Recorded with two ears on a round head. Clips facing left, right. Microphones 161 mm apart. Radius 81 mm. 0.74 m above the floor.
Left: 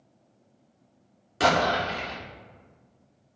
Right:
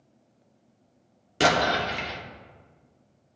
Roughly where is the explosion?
Right.